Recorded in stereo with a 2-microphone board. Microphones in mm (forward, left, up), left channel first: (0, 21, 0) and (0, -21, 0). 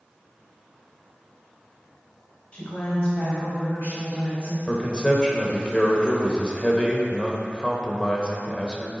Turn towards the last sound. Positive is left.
turn(degrees=20)  # may be behind; listen again after turning